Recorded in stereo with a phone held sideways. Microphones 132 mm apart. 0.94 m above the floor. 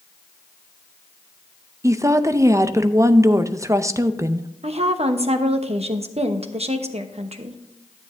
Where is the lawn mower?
I don't hear a lawn mower.